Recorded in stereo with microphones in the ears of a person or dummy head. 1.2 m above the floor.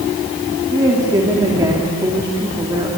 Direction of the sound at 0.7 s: 15° right (ahead or behind).